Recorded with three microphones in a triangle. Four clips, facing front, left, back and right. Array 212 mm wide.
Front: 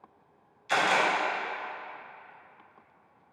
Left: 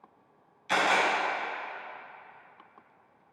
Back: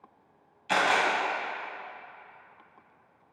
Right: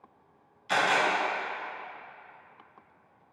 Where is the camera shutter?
175° left, 1.1 m.